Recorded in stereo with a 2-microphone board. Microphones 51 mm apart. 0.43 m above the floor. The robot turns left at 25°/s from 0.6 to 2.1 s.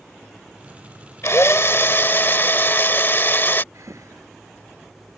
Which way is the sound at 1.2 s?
65° left (ahead or behind).